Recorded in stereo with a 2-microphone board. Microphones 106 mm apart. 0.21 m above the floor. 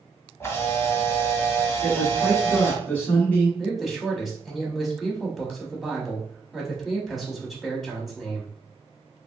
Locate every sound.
0.4 s a camera shutter: 25° left (ahead or behind), 1.0 m
1.8 s a man speaking: 15° left (ahead or behind), 1.0 m
3.6 s a man speaking: centre (ahead or behind), 1.0 m